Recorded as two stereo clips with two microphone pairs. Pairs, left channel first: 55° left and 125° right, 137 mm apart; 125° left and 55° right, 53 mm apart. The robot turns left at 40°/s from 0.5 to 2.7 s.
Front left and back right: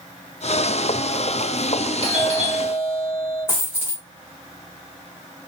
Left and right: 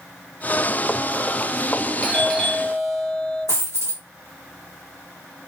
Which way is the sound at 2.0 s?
60° left.